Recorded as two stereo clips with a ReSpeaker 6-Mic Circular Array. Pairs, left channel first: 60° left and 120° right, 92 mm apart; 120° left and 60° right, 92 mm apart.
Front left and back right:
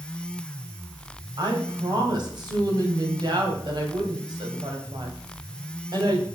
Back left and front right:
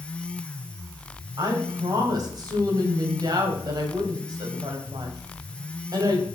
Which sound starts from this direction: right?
A woman speaking, at 1.4 s.